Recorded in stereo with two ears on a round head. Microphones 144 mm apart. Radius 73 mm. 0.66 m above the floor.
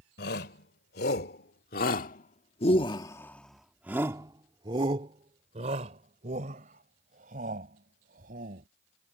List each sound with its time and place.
0.2 s a shout: 75° left (ahead or behind); by 8.7 s 55° right (ahead or behind)